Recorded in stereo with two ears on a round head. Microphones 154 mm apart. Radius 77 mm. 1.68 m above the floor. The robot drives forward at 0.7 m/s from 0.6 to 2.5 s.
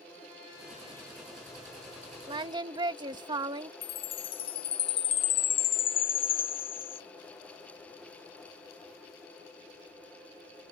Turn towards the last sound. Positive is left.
turn(degrees=35)  # may be behind; listen again after turning